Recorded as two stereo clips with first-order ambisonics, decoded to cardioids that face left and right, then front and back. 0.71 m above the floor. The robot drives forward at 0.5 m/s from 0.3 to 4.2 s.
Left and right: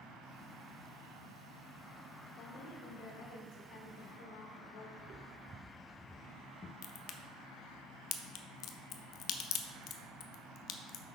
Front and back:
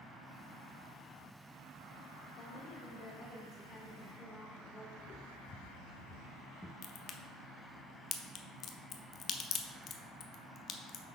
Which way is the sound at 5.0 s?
50° right.